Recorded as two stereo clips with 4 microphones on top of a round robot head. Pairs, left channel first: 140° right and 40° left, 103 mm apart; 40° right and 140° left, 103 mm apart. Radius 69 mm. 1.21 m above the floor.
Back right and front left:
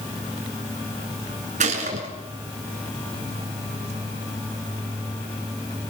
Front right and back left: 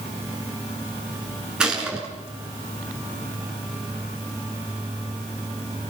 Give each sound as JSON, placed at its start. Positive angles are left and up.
{"t": 1.6, "sound": "a gunshot", "azimuth_deg": 55, "distance_m": 6.0}